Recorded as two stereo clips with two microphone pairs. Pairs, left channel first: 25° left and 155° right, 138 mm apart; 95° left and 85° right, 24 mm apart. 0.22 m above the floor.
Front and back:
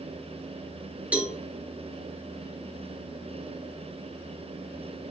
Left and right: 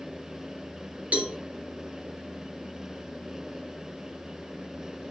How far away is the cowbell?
About 2.5 m.